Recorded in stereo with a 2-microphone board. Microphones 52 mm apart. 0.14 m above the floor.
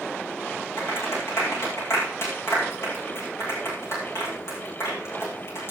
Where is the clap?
55° left (ahead or behind), 9.5 m.